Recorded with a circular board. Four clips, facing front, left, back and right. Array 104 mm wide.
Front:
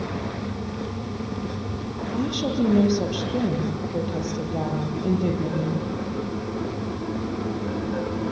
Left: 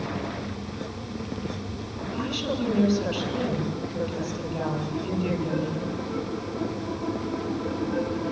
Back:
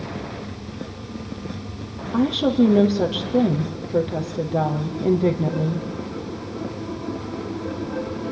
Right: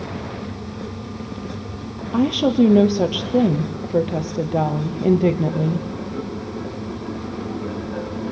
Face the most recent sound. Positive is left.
turn(degrees=-110)